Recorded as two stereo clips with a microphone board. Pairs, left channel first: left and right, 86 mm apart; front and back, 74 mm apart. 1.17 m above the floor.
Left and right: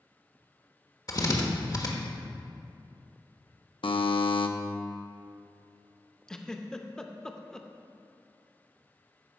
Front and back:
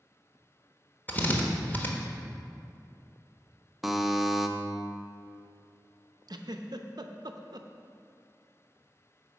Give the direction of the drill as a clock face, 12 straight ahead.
10 o'clock.